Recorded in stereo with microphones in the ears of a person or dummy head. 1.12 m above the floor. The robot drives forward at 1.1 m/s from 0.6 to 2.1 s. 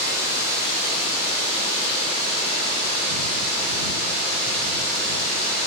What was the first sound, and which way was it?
Running water, 50° left (ahead or behind).